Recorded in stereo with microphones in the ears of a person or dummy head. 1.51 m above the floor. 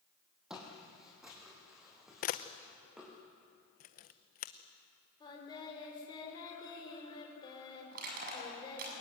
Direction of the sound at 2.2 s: 40° left (ahead or behind).